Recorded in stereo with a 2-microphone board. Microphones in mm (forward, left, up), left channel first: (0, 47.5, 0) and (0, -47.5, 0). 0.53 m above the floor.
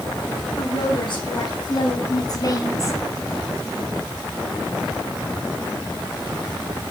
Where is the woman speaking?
60° left (ahead or behind), 5 m; by 3.0 s 30° left (ahead or behind), 2.5 m.